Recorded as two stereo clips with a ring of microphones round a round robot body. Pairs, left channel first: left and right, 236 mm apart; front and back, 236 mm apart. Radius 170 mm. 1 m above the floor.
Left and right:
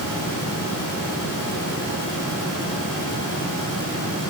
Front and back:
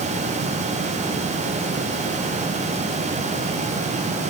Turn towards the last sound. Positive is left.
No sound to turn to.